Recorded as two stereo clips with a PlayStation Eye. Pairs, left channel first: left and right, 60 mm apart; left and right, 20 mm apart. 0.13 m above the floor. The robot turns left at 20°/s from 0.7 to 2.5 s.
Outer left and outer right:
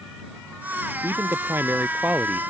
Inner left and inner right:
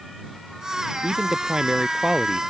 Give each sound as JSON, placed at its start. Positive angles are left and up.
{"t": 1.0, "sound": "a man speaking", "side_deg": -45}